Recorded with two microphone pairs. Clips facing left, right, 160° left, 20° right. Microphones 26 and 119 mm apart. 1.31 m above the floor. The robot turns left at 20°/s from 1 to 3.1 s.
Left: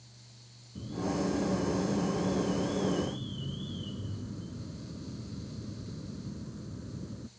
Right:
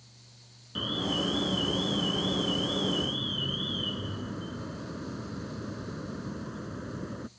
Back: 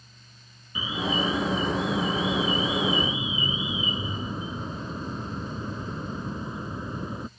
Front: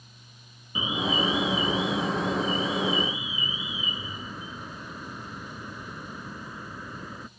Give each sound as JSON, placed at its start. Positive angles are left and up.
{"t": 0.8, "sound": "an alarm", "azimuth_deg": -90}